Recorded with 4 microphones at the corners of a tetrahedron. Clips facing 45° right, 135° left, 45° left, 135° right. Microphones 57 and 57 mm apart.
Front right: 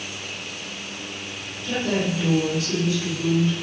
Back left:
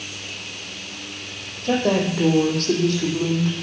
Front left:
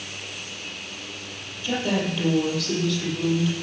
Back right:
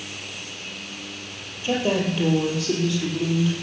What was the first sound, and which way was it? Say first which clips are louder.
A woman speaking: back left 4 dB, back right 2 dB; 160° left.